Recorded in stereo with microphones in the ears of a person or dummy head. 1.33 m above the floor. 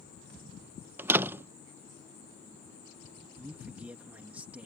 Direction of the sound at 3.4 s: 10° right (ahead or behind).